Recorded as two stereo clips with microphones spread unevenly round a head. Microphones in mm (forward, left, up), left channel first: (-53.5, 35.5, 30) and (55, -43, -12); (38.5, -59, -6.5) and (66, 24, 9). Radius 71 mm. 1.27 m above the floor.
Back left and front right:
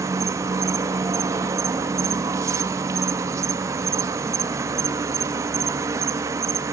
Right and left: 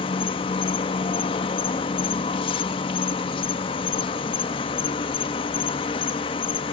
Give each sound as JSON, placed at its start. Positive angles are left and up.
{"t": 0.0, "sound": "an insect", "azimuth_deg": -115, "distance_m": 0.8}